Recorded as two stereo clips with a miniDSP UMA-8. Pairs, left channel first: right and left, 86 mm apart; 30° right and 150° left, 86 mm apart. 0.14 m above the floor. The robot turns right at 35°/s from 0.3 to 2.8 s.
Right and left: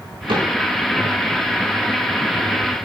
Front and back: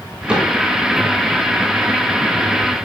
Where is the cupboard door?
70° left, 7.5 m; by 0.5 s 80° left, 7.5 m.